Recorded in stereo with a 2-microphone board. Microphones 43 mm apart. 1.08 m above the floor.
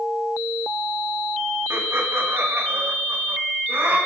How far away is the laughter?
About 2 m.